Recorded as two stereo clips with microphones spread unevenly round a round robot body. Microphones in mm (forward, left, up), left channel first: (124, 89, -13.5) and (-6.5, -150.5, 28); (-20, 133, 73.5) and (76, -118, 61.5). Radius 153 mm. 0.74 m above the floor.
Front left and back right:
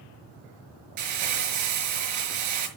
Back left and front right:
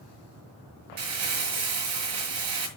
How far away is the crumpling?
About 5 m.